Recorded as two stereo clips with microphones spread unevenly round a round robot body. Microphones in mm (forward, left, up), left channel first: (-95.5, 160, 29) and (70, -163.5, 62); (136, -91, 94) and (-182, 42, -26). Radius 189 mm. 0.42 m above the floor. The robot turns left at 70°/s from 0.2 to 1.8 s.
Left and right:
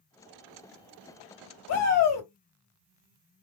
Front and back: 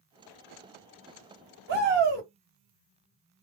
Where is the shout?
140° left, 2 m; by 2.3 s 130° left, 2 m.